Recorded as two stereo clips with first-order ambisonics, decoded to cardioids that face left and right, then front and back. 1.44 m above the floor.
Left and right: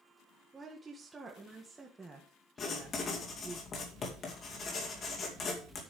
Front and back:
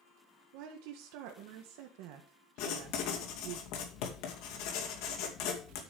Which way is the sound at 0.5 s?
170° right.